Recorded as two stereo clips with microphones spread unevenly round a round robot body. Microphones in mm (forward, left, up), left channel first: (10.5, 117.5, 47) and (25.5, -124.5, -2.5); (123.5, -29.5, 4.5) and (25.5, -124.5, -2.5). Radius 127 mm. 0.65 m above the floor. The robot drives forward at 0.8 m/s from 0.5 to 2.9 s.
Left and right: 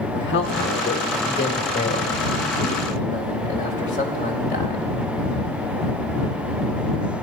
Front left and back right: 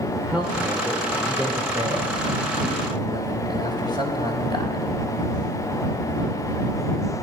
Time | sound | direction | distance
0.1 | a man speaking | 140° left | 2.5 m